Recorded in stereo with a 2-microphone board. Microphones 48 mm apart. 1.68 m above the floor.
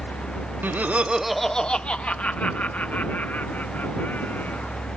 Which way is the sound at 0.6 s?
45° right (ahead or behind).